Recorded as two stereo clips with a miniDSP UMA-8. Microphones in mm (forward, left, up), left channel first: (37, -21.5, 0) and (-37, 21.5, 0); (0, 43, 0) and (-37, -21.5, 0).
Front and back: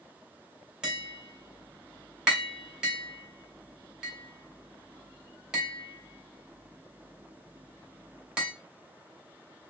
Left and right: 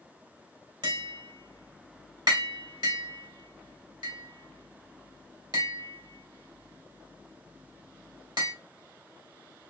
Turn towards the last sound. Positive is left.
turn(degrees=-130)